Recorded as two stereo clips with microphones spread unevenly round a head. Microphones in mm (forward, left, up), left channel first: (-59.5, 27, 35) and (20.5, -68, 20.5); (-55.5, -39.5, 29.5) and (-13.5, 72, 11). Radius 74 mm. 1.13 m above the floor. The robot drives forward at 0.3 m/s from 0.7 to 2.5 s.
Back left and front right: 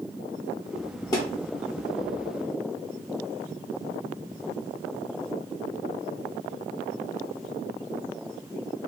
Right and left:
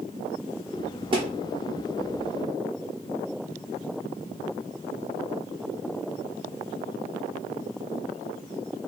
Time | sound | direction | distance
1.1 | a thud | 100° left | 0.8 m